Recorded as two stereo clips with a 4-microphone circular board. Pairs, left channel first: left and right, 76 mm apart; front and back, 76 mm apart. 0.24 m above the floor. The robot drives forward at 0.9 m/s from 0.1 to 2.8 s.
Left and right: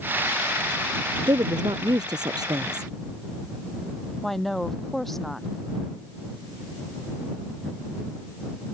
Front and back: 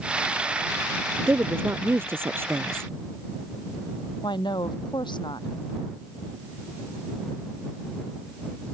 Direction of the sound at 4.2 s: 5° left.